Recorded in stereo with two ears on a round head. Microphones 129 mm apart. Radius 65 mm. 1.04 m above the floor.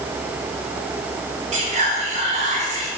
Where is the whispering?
50° right (ahead or behind), 1.6 m.